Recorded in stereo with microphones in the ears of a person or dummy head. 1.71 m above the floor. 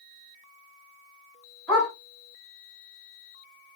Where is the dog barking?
5° right (ahead or behind), 2 m.